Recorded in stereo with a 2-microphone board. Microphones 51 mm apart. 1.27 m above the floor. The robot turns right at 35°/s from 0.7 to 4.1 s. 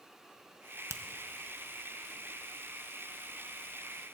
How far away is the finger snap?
About 0.8 m.